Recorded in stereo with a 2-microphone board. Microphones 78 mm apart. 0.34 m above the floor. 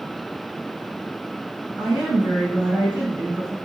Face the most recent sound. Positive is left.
turn(degrees=-15)  # may be behind; listen again after turning